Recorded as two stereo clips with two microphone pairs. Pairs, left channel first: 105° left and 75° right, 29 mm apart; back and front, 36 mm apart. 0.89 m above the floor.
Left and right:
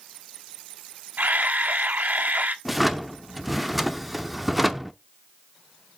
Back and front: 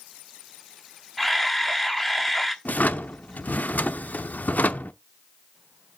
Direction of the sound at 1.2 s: 95° right.